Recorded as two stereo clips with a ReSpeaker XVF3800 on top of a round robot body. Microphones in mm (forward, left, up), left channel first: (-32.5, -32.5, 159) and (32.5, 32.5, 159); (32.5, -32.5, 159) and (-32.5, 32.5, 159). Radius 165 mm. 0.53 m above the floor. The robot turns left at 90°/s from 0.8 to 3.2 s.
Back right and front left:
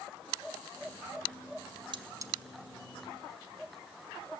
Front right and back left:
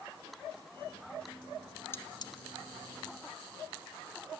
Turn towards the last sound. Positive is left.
turn(degrees=-95)